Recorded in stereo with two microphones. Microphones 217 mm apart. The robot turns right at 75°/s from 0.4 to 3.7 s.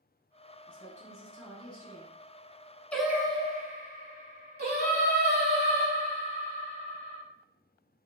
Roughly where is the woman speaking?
Behind left.